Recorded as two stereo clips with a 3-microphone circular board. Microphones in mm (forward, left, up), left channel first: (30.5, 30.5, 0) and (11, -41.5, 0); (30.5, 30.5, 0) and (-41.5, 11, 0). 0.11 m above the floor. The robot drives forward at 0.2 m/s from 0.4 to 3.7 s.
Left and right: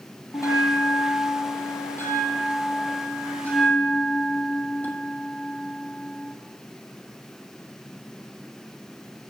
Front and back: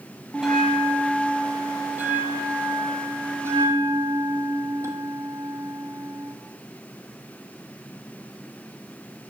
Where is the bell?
110° left, 0.8 m; by 6.3 s 140° left, 1.2 m.